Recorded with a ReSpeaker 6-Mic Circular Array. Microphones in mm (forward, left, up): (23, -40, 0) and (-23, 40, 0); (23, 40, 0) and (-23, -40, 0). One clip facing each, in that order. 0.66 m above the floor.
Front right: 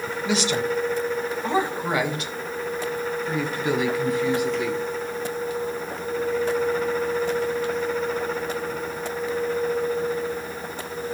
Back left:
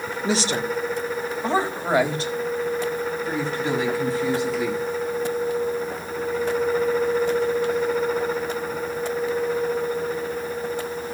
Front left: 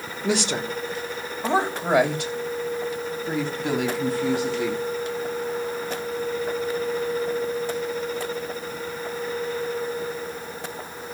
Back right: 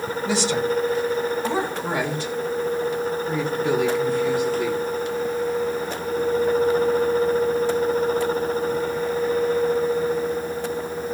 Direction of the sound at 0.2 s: 70° left.